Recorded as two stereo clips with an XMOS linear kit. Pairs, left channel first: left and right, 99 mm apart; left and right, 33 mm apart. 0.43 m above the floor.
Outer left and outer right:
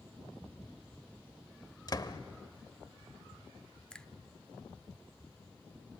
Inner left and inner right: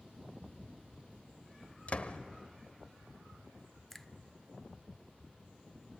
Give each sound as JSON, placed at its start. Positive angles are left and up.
{"t": 1.9, "sound": "a door slam", "side_deg": 40, "distance_m": 0.9}
{"t": 3.9, "sound": "a finger snap", "side_deg": 10, "distance_m": 0.6}